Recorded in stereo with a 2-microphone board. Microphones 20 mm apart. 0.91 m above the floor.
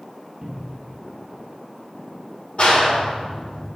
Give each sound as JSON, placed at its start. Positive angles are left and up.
{"t": 0.4, "sound": "a cupboard door", "side_deg": -35, "distance_m": 1.2}
{"t": 2.6, "sound": "a clap", "side_deg": 60, "distance_m": 2.0}